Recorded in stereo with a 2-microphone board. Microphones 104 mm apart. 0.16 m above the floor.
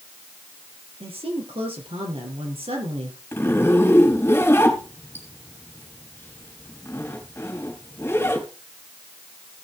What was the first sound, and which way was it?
A woman speaking, 70° right (ahead or behind).